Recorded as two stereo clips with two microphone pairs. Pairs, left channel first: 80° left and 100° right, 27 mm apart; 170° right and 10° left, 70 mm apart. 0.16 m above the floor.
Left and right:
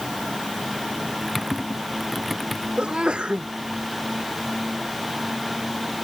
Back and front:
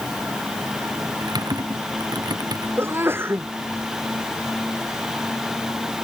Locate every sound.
1.2 s typing on a keyboard: 10° right
2.8 s a sneeze: 50° right